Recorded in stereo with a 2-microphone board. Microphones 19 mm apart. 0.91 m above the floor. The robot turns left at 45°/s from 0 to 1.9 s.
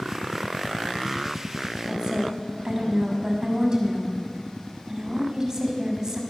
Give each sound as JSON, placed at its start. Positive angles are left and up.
{"t": 1.9, "sound": "a woman speaking", "side_deg": -30, "distance_m": 6.5}